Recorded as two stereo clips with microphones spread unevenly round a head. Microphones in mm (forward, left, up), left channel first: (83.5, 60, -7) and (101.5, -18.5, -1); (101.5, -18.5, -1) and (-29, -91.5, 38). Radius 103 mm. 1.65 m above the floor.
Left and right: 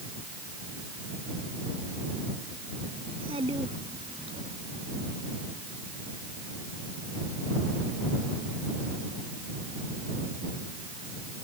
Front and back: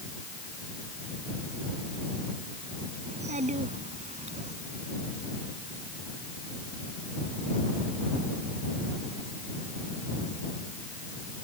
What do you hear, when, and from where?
3.0 s a child speaking: 115° right; by 4.5 s 110° right